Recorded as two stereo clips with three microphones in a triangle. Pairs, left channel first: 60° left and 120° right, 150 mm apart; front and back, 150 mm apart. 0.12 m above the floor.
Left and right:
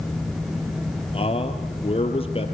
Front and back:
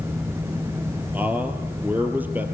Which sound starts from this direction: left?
A man speaking, at 1.1 s.